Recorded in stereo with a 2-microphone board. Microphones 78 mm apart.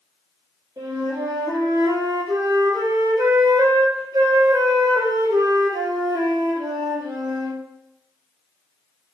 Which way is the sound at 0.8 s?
55° right (ahead or behind).